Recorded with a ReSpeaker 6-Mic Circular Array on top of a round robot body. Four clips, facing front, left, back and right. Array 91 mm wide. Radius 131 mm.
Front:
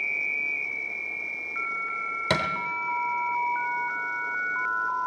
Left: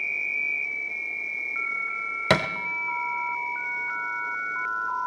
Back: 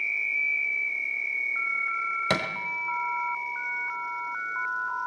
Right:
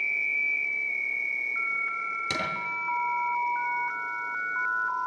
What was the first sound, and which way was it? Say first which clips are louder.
A thud: left 11 dB, front 3 dB; 90° left.